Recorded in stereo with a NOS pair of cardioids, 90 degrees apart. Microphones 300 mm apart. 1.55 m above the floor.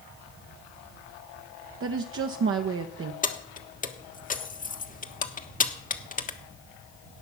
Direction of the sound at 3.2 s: 30° left.